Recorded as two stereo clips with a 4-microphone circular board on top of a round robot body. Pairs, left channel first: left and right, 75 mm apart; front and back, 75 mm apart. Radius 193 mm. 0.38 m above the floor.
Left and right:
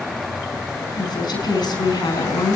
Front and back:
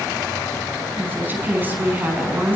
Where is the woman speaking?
115° left, 6 m.